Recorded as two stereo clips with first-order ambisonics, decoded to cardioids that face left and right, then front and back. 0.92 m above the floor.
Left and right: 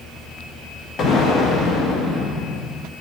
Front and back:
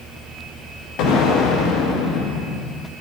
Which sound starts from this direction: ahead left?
An explosion, at 1.0 s.